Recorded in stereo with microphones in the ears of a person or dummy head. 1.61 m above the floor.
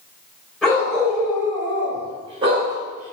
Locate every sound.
0.6 s a dog barking: centre (ahead or behind), 2 m; by 3.1 s 45° right (ahead or behind), 1.8 m